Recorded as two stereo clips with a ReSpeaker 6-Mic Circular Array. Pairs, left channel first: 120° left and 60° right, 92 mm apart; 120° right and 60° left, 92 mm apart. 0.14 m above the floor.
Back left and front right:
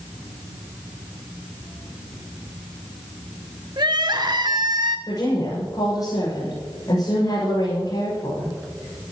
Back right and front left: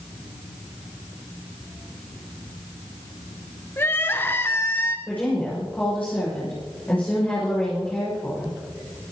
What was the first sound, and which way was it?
Crying, 65° right.